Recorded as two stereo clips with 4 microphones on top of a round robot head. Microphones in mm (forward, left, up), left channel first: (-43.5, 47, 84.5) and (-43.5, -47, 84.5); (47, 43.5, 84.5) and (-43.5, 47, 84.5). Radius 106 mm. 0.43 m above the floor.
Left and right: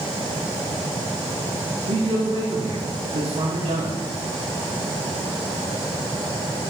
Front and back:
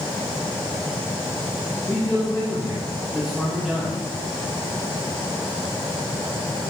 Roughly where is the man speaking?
Right.